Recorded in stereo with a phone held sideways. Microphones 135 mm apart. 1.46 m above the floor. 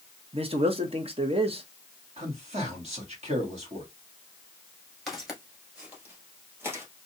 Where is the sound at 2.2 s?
55° right (ahead or behind), 1.9 m.